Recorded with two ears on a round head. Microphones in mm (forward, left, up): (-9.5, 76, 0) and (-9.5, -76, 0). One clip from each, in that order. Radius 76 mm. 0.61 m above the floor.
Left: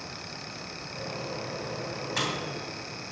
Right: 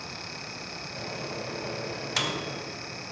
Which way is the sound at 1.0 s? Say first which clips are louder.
Left 1 dB; 70° right (ahead or behind).